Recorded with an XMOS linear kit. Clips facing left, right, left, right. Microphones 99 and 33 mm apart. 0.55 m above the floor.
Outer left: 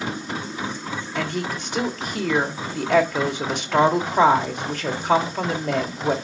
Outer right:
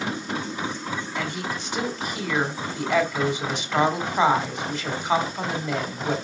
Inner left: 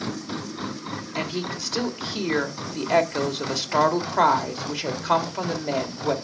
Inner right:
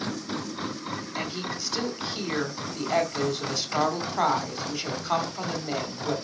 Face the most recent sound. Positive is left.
turn(degrees=60)  # may be behind; listen again after turning